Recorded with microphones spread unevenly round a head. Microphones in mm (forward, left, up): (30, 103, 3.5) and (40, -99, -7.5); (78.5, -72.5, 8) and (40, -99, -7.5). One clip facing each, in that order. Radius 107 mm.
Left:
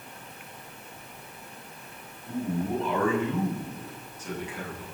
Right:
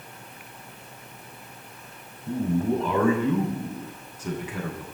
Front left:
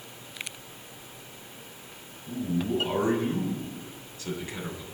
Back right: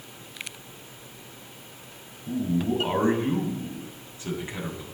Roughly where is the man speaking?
Right.